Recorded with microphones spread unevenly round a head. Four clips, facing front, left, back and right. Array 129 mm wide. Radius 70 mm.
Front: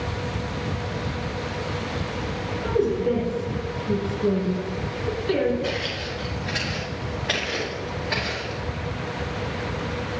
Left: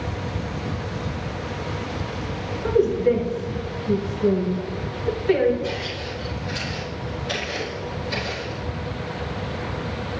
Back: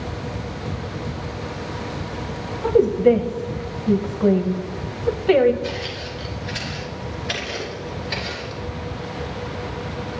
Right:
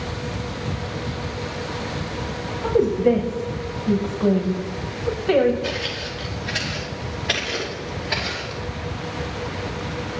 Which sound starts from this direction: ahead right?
Footsteps, at 5.6 s.